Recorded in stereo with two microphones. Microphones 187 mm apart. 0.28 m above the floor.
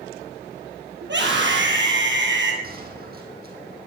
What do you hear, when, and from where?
1.0 s a scream: 75° right (ahead or behind), 6.5 m; by 2.5 s 80° right, 5.5 m
2.6 s a gunshot: 55° right (ahead or behind), 4 m